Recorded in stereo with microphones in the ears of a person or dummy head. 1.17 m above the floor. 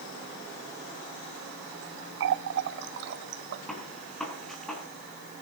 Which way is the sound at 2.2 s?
60° right (ahead or behind).